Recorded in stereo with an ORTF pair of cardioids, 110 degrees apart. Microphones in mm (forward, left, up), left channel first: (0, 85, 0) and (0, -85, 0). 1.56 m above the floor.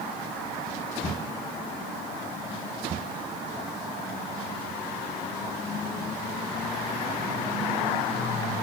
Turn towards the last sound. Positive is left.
No sound to turn to.